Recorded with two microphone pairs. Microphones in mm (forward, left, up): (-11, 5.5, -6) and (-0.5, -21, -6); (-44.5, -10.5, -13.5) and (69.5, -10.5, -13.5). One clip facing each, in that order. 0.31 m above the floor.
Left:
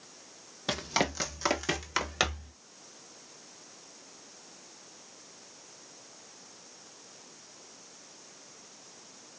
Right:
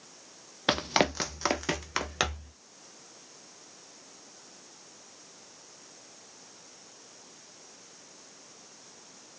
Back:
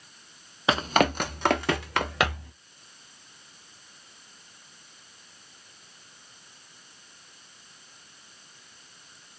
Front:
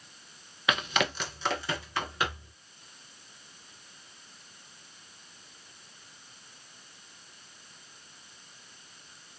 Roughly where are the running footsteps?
Behind right.